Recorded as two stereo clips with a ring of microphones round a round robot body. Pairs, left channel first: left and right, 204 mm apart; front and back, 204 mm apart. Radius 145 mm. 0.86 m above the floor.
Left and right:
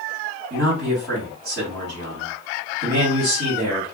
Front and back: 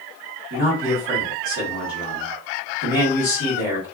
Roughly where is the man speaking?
Behind right.